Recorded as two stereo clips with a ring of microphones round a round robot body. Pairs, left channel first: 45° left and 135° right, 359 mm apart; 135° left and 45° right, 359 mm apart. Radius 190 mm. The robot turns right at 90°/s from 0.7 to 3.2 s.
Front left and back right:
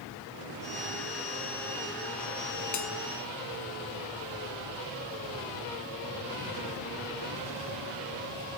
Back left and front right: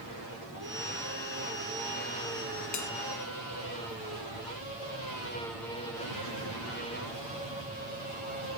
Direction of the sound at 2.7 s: 90° left.